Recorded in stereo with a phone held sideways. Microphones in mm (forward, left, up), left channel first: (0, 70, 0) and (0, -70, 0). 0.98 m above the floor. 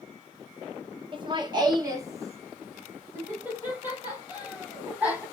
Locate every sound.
1.1 s laughter: 35° right (ahead or behind), 1.1 m; by 5.2 s 10° right (ahead or behind), 3.5 m